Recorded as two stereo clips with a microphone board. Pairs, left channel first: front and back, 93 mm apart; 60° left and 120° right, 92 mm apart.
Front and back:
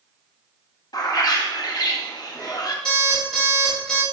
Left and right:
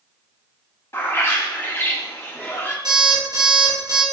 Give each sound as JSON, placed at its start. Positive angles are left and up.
{"t": 0.9, "sound": "a bird", "azimuth_deg": 10, "distance_m": 0.7}
{"t": 2.9, "sound": "an alarm clock", "azimuth_deg": -85, "distance_m": 2.5}